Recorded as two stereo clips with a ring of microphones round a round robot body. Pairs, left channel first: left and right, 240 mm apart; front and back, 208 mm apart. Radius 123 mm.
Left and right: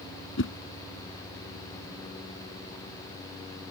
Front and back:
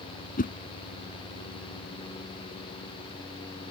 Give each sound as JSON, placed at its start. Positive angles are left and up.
{"t": 0.4, "sound": "a whoosh", "azimuth_deg": 50}